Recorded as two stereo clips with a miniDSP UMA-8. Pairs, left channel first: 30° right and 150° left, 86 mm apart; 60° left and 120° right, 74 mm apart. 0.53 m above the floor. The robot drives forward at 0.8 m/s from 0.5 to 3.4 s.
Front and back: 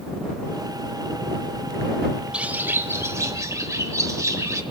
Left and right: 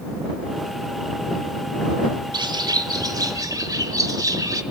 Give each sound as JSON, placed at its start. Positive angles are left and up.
{"t": 2.3, "sound": "a bird", "azimuth_deg": -130, "distance_m": 0.7}